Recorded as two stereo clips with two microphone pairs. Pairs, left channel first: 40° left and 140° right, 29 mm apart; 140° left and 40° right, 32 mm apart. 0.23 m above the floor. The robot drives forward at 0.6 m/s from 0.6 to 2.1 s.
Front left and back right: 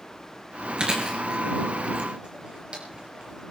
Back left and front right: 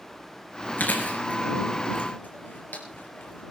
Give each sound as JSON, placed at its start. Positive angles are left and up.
{"t": 0.8, "sound": "chewing", "azimuth_deg": 160, "distance_m": 3.5}